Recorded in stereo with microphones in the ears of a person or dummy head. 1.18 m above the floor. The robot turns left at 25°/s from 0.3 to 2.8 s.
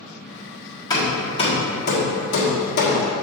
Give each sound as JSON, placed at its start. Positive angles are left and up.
{"t": 0.9, "sound": "hammering", "side_deg": 20, "distance_m": 1.5}